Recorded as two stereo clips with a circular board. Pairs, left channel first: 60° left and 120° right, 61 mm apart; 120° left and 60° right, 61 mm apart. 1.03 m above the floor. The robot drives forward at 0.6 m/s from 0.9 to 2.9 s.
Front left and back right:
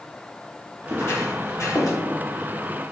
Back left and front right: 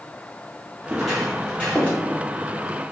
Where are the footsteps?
15° left, 1.5 m; by 2.0 s 70° left, 1.6 m.